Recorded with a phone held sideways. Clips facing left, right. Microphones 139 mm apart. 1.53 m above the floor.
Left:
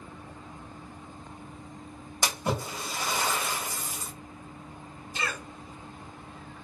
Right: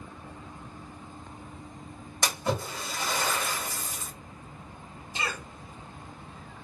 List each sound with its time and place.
2.2 s a splash: 15° left (ahead or behind), 1.3 m
5.2 s a cough: 20° right (ahead or behind), 0.8 m